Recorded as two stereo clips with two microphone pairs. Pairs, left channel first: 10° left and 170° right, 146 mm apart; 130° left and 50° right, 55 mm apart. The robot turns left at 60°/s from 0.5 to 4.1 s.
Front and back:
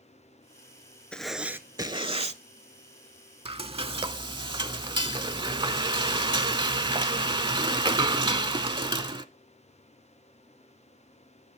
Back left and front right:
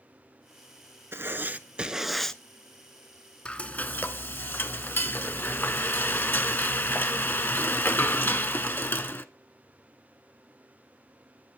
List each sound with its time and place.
1.1 s writing: 75° right, 0.5 m; by 2.4 s 150° right, 0.5 m
3.5 s frying: 160° right, 0.5 m; by 9.2 s 160° left, 0.5 m